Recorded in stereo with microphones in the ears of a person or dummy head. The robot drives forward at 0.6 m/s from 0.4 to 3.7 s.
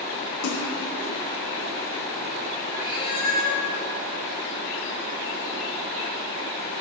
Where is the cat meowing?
35° left (ahead or behind), 2.5 m; by 3.6 s 30° left (ahead or behind), 2.5 m.